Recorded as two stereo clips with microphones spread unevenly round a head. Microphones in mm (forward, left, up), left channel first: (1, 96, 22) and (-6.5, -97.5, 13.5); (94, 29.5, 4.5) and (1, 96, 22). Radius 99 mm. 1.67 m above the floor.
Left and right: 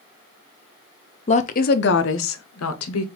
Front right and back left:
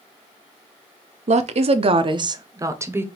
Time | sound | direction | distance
1.3 | a woman speaking | 145° left | 0.7 m